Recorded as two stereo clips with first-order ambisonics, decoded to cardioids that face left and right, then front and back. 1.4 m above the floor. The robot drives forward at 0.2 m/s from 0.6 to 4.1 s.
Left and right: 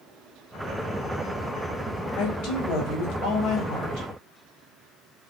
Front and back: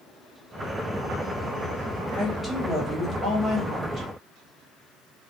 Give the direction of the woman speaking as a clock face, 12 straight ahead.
9 o'clock.